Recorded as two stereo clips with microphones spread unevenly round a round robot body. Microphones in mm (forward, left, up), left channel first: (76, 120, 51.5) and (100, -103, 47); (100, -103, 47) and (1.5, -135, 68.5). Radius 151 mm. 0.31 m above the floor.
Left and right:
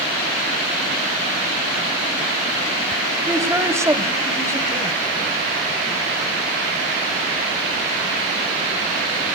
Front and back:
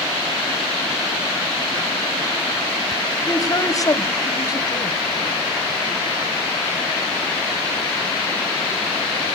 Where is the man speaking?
10° right, 1.6 m.